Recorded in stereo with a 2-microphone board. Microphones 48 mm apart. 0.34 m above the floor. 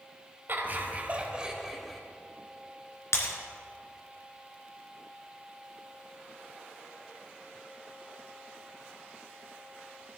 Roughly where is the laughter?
Right.